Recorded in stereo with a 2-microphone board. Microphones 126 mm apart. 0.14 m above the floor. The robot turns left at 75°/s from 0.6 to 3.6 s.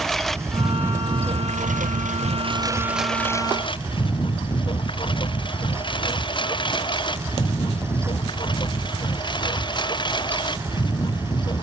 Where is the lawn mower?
Centre (ahead or behind); by 11.6 s 35° left (ahead or behind).